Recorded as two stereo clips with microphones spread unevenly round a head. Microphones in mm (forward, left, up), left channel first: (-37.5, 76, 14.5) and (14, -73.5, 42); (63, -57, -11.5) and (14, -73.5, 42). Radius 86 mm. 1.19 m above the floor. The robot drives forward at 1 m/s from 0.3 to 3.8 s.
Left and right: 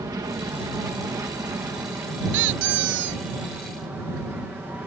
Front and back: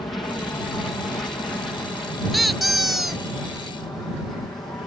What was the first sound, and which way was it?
An aircraft, straight ahead.